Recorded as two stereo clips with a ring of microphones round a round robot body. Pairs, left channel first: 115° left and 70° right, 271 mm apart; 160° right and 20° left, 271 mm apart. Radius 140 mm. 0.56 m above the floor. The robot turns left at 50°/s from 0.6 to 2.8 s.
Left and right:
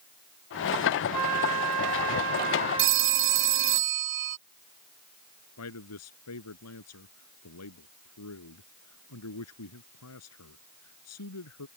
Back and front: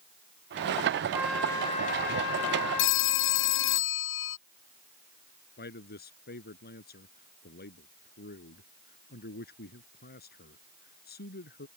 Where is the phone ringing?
110° right; by 4.4 s 115° right.